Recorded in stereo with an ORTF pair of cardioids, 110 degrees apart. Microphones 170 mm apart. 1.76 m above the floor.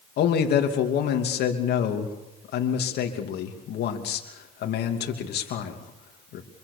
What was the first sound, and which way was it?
A man speaking, 65° left.